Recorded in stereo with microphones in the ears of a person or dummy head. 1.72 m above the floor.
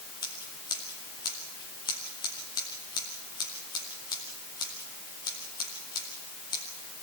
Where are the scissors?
15° left (ahead or behind), 2.5 m.